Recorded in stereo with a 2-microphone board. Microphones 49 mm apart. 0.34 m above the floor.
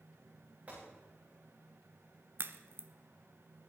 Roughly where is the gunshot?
Right.